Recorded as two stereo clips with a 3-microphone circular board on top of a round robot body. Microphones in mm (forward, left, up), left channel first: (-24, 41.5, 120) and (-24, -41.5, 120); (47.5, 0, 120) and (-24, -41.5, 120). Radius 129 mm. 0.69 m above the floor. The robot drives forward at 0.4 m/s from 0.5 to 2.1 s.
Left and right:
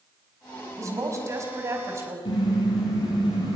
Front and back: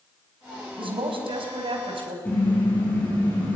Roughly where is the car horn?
Left.